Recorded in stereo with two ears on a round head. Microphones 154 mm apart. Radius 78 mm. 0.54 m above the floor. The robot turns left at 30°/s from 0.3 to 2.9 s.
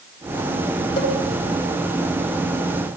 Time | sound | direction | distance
1.0 | a cowbell | 30° left (ahead or behind) | 6.5 m